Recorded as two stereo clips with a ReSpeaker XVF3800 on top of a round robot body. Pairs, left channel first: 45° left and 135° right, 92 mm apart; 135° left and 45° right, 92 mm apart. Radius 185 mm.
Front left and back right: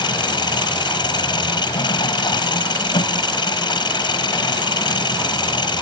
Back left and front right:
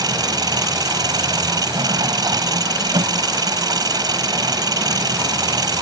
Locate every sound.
0.0 s an engine running: 5° left